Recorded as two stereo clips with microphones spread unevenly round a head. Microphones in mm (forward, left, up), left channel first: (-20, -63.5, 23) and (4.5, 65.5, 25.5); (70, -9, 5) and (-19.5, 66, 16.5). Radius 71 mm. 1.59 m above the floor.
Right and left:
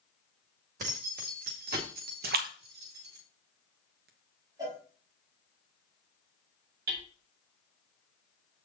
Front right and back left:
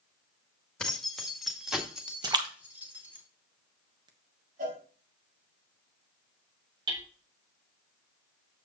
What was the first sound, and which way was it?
Keys jangling, 45° left.